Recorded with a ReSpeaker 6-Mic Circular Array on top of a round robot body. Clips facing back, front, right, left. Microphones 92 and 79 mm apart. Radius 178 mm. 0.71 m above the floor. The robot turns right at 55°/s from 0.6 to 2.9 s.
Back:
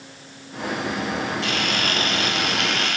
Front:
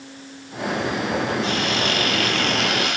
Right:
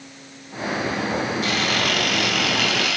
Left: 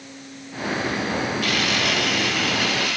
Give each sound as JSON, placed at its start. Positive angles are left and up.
{"t": 1.4, "sound": "a camera shutter", "azimuth_deg": -155, "distance_m": 1.1}